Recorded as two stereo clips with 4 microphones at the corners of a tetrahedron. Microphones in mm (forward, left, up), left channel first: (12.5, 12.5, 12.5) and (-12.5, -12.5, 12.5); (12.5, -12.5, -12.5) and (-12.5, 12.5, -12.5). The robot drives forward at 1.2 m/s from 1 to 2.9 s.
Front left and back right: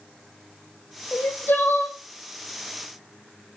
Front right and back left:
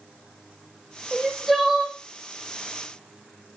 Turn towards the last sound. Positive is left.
turn(degrees=85)